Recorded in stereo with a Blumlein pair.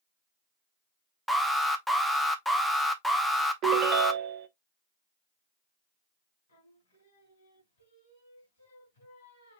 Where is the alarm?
Straight ahead, 0.9 m.